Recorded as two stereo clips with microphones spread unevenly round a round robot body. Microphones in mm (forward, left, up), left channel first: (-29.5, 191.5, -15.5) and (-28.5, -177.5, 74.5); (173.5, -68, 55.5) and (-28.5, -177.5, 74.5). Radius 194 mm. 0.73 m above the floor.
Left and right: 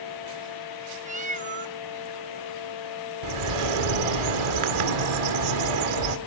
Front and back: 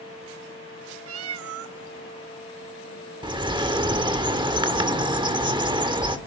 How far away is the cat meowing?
About 0.7 m.